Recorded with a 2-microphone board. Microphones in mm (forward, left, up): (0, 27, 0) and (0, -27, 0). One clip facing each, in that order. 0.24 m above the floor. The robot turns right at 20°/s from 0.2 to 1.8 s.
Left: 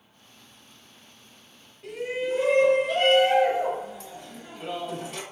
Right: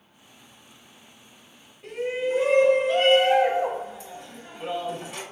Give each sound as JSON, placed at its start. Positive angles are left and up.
{"t": 1.8, "sound": "a shout", "side_deg": -5, "distance_m": 1.0}